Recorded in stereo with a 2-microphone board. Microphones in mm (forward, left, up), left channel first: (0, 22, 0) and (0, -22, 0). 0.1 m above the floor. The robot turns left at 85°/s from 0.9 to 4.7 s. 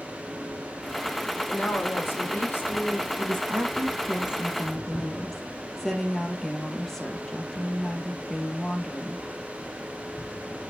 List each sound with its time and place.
1.5 s a woman speaking: 150° left, 3.5 m; by 3.1 s 15° left, 3.5 m
3.2 s a woman speaking: 60° right, 2.5 m; by 9.2 s 170° left, 2.5 m